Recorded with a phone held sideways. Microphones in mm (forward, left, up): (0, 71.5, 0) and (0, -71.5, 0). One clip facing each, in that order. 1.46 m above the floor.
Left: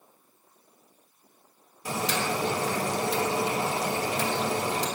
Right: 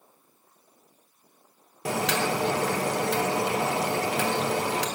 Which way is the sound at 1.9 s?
75° right (ahead or behind).